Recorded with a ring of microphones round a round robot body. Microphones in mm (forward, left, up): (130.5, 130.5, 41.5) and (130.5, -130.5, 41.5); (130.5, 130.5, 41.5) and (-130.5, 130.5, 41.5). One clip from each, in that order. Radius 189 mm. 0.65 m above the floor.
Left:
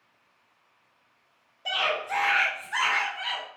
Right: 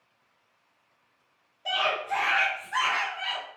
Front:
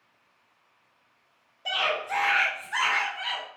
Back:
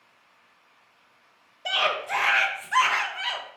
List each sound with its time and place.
1.6 s a scream: 160° left, 0.6 m